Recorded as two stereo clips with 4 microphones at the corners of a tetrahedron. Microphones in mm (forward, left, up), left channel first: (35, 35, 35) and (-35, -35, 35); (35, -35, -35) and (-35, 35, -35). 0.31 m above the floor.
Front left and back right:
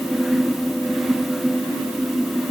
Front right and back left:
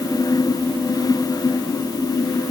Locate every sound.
Only background noise.